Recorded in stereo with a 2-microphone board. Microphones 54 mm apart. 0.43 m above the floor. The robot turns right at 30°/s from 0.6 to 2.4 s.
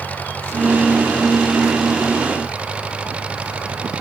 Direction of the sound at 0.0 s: 150° left.